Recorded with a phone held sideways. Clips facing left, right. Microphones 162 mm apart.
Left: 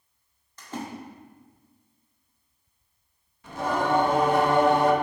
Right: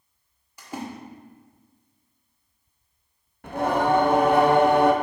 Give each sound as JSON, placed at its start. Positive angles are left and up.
{"t": 0.6, "sound": "a splash", "side_deg": -10, "distance_m": 1.4}
{"t": 3.4, "sound": "singing", "side_deg": -60, "distance_m": 0.9}